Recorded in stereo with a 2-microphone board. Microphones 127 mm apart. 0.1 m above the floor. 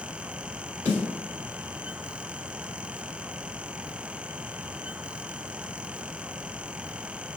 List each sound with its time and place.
0.8 s a snare drum: 20° right (ahead or behind), 1.8 m